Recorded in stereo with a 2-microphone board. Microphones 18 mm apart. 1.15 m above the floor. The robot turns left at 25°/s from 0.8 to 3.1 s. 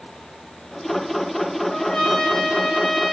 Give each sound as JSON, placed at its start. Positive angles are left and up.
{"t": 1.7, "sound": "a trumpet", "azimuth_deg": 80, "distance_m": 2.0}